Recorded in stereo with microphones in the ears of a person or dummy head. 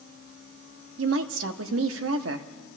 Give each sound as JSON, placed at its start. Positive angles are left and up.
{"t": 1.0, "sound": "a woman speaking", "side_deg": -85, "distance_m": 1.0}